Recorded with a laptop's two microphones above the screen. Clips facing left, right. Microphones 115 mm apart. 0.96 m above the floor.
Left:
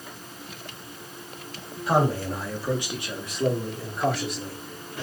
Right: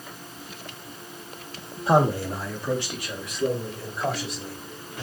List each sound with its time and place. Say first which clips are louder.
1.9 s a man speaking: right 2 dB; 30° right (ahead or behind), 1.0 m; by 5.0 s 60° left (ahead or behind), 2.5 m